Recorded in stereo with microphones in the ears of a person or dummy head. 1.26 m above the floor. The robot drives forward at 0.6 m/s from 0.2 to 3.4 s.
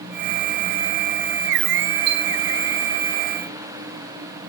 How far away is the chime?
About 1.2 m.